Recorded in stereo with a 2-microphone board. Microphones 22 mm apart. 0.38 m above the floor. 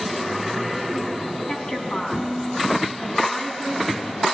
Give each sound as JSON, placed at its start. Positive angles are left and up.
{"t": 1.5, "sound": "a woman speaking", "side_deg": 55, "distance_m": 3.0}